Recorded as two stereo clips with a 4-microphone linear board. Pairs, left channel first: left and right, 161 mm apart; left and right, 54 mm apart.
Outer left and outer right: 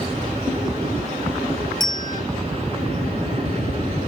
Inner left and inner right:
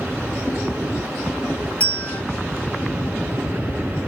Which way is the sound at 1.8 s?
25° left (ahead or behind).